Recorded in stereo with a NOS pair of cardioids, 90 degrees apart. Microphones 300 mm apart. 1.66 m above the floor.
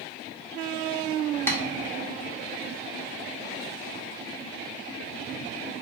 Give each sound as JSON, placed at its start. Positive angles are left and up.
{"t": 1.5, "sound": "tapping", "azimuth_deg": 10, "distance_m": 0.7}